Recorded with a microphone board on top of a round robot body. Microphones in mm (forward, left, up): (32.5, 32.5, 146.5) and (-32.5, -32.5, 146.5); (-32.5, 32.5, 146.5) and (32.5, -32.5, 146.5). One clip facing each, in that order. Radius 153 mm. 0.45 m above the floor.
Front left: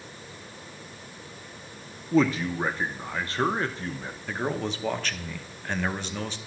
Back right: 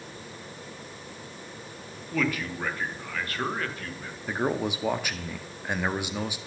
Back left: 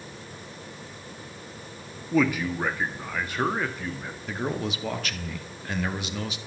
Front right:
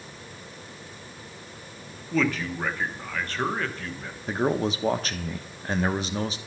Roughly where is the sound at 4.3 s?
Ahead right.